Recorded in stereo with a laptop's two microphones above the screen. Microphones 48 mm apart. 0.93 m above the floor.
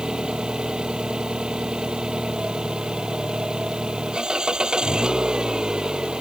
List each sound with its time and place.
0.0 s an engine running: 20° right (ahead or behind)